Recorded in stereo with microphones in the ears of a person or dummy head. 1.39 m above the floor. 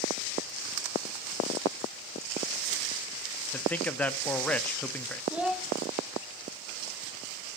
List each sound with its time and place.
3.5 s a man speaking: 10° left (ahead or behind), 0.5 m
5.3 s a child speaking: 10° right (ahead or behind), 0.9 m